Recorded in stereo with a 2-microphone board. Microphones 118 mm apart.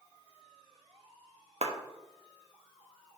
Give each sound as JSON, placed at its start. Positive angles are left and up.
{"t": 1.6, "sound": "a clap", "side_deg": -60, "distance_m": 1.0}